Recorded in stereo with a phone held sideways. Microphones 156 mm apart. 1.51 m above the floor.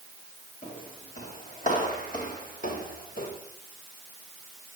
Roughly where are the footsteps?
Left.